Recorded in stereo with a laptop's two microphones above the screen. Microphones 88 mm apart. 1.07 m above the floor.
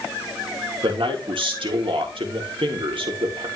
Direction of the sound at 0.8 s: 75° right (ahead or behind).